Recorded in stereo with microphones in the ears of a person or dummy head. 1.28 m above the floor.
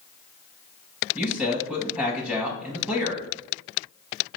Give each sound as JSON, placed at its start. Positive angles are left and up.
{"t": 1.1, "sound": "a man speaking", "side_deg": 0, "distance_m": 0.7}